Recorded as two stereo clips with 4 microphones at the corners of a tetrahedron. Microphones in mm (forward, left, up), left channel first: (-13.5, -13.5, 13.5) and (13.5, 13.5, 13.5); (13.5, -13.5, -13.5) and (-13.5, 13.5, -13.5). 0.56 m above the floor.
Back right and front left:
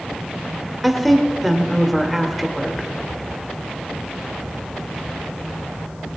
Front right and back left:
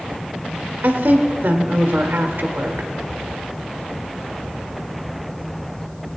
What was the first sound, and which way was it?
A woman speaking, 135° left.